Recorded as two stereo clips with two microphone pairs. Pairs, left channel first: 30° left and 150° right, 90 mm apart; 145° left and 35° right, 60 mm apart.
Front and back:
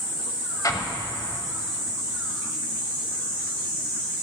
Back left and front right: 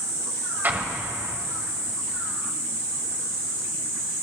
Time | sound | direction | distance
0.6 | an explosion | 10° left | 1.1 m